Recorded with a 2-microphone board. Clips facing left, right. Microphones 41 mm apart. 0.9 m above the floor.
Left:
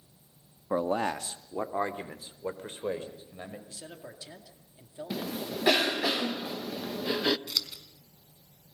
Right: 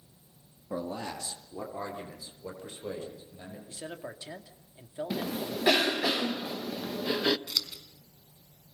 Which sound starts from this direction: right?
A man speaking, at 3.7 s.